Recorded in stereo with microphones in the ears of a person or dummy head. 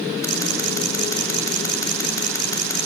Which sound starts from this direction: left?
Scissors, at 0.2 s.